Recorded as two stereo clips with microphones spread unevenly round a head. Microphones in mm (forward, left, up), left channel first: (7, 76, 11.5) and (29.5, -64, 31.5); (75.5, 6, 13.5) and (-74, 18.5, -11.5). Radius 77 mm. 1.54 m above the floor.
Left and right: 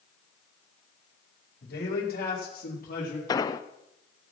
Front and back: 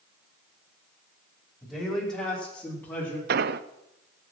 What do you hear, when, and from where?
1.6 s a man speaking: 85° left, 4.5 m; by 3.2 s 70° left, 4 m
3.3 s an explosion: 160° left, 0.6 m